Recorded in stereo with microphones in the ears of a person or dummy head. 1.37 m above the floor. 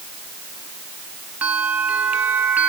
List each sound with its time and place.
1.4 s a bell: 5° right (ahead or behind)